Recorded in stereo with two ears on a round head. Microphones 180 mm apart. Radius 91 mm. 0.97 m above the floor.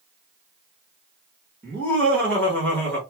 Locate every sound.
1.6 s laughter: 10° left (ahead or behind), 1.3 m